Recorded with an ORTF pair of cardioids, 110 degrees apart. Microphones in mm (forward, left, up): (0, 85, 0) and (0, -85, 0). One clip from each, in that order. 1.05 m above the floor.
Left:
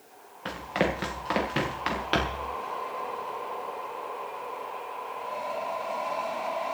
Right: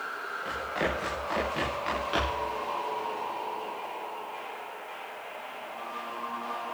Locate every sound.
0.5 s running footsteps: 55° left, 5.5 m